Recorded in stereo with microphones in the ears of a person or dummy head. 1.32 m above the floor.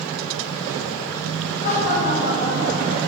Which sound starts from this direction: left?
Laughter, at 1.6 s.